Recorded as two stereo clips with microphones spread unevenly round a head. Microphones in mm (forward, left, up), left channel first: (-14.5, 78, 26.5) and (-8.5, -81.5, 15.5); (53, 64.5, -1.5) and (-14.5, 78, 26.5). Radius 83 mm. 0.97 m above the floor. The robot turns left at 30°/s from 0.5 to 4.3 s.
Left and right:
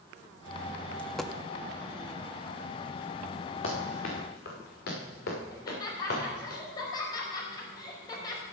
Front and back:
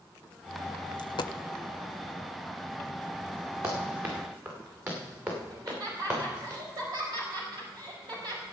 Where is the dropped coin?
10° left, 0.5 m; by 1.3 s straight ahead, 0.5 m.